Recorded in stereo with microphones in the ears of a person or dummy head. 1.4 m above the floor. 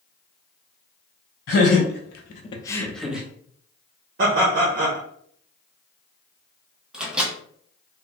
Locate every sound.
1.5 s laughter: 65° left (ahead or behind), 1.0 m; by 3.3 s 10° right (ahead or behind), 0.9 m
4.2 s laughter: 60° right (ahead or behind), 0.8 m
6.9 s a microwave: 10° right (ahead or behind), 0.6 m